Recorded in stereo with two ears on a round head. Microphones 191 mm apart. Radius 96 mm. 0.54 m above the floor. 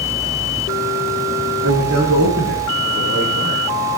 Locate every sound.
1.6 s a man speaking: 80° right, 8.5 m